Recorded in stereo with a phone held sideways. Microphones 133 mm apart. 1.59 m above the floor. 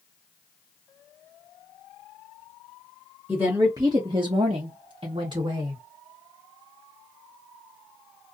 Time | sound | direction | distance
3.3 | a woman speaking | 15° right (ahead or behind) | 0.9 m